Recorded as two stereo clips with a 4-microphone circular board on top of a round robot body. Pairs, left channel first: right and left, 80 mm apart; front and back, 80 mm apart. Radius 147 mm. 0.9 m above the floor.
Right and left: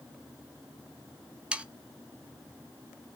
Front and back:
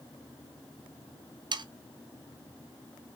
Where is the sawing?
165° left, 1.4 m.